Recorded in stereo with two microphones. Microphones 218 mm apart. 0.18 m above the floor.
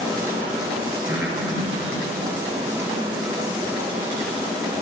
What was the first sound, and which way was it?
Breathing, 10° right (ahead or behind).